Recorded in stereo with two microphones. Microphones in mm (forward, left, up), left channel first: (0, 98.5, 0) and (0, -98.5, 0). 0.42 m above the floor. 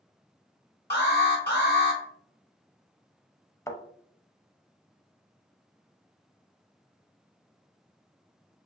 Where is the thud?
10° left (ahead or behind), 0.6 m.